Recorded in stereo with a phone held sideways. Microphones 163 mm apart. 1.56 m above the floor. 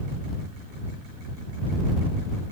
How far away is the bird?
I don't hear a bird.